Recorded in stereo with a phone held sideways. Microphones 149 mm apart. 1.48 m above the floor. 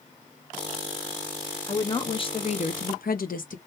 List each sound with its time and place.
1.7 s a woman speaking: 25° left (ahead or behind), 1.2 m; by 3.6 s 60° left (ahead or behind), 0.7 m